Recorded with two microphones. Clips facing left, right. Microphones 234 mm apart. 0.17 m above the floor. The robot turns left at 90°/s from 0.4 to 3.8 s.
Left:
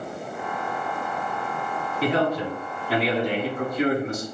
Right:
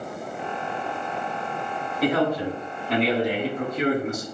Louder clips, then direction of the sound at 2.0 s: Right 1 dB; 30° left (ahead or behind).